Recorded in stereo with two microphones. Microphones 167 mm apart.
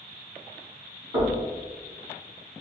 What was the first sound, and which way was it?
Knocking, 35° right (ahead or behind).